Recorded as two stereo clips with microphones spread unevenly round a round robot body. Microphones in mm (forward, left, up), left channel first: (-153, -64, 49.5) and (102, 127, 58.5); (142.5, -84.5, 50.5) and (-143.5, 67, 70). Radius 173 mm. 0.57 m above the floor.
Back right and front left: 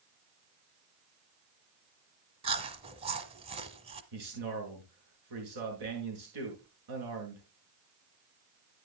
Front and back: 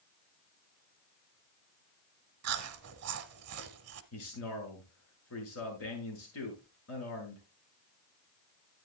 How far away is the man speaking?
About 7 m.